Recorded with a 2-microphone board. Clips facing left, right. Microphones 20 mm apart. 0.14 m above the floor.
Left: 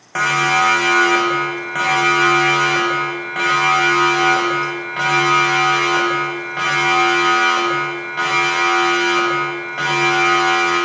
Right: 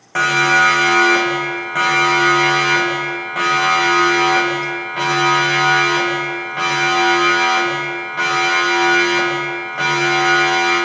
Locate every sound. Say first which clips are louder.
0.1 s a siren: right 2 dB; 5° left (ahead or behind), 7.5 m; by 10.8 s 15° left (ahead or behind), 18.5 m